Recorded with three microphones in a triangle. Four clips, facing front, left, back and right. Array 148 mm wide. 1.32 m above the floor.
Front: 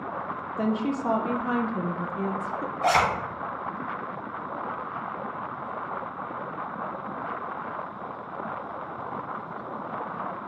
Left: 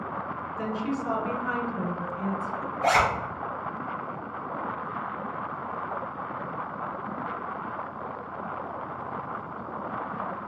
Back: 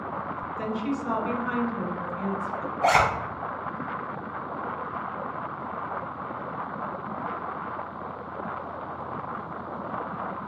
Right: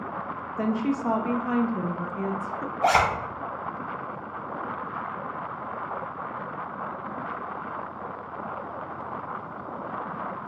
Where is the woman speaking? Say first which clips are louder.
Right 5 dB, front 4 dB; 35° right, 0.5 m.